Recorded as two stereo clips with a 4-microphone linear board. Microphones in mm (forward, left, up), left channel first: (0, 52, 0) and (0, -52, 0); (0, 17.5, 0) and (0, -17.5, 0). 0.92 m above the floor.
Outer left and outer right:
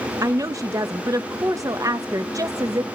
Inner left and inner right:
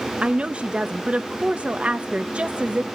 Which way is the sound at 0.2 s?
35° right (ahead or behind).